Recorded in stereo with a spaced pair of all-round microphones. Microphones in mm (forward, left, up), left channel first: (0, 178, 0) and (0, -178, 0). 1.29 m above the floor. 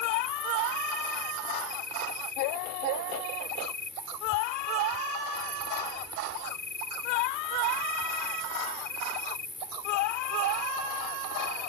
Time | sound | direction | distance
0.0 | an insect | 30° left (ahead or behind) | ?